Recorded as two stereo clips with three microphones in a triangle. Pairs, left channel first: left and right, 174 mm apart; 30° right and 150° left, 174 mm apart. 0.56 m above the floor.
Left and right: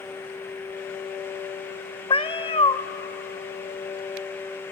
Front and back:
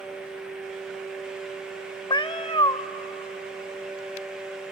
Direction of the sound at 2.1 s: 30° left.